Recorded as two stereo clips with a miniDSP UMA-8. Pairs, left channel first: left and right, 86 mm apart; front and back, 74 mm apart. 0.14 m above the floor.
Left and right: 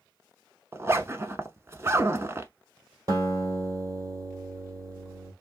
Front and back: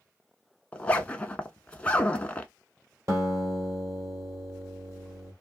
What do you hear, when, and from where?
0.7 s a zipper: 60° right, 0.6 m
3.1 s a guitar: 140° right, 2 m